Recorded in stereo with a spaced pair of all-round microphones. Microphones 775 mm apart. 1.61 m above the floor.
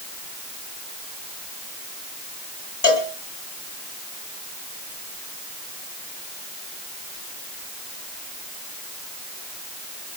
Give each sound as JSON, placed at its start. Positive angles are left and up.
{"t": 2.8, "sound": "a cowbell", "side_deg": 50, "distance_m": 2.5}